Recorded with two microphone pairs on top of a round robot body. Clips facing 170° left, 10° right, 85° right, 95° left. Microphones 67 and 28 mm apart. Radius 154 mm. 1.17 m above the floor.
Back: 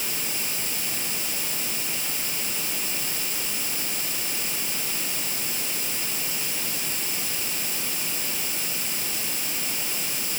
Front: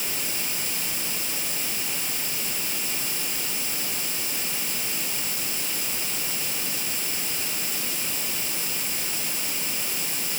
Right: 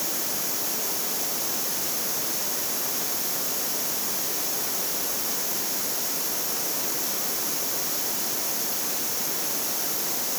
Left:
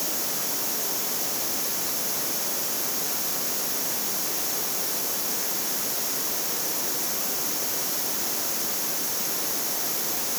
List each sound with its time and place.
Only background noise.